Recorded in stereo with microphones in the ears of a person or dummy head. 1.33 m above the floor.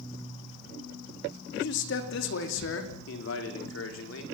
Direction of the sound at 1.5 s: 55° left (ahead or behind).